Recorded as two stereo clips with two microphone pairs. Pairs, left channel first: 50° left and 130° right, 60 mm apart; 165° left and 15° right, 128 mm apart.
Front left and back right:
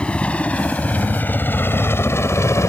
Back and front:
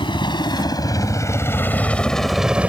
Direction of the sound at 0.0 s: 120° left.